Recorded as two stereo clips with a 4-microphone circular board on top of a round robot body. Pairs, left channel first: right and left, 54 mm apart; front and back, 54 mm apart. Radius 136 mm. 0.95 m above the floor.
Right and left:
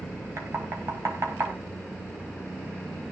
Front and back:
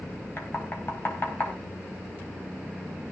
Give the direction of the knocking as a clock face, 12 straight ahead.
10 o'clock.